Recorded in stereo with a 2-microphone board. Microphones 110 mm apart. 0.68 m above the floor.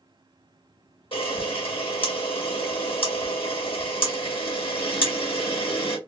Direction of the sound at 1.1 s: 55° left (ahead or behind).